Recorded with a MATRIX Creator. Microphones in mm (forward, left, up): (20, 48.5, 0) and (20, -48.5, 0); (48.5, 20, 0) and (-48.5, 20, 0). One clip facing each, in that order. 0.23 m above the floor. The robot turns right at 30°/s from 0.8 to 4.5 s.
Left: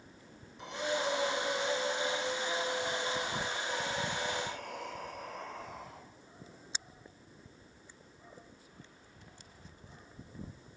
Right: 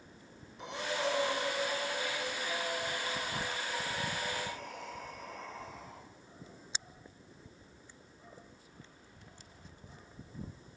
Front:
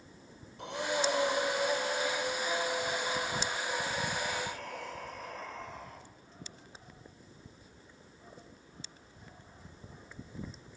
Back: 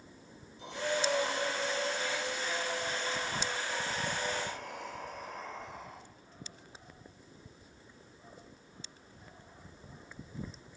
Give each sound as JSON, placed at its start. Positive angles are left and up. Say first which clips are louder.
{"t": 0.6, "sound": "breathing", "louder": "left 1 dB, front 1 dB", "azimuth_deg": 0, "distance_m": 2.0}